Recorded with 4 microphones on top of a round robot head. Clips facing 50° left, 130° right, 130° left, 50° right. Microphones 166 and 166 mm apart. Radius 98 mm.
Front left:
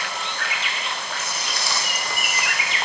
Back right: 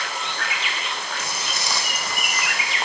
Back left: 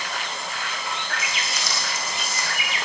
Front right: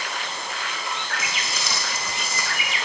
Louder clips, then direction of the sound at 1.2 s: Even, even; 70° right.